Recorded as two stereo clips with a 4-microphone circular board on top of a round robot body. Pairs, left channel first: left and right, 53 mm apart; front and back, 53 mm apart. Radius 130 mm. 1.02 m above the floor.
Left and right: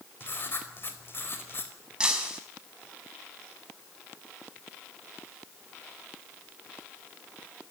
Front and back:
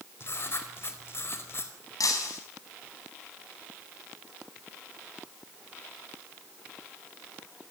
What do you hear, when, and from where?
0.2 s writing: 45° left, 4.5 m
2.0 s breaking glass: 15° right, 5 m